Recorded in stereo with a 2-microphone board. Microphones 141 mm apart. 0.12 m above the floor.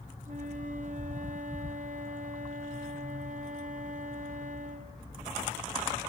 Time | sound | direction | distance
0.2 | a flute | 55° right (ahead or behind) | 1.7 m